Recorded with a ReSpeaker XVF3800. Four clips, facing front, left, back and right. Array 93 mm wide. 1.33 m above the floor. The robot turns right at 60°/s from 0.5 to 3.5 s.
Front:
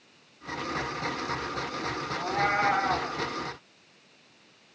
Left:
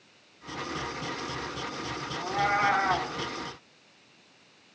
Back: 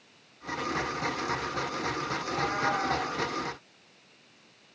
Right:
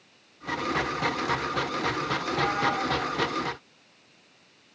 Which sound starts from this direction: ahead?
A cat meowing, at 2.2 s.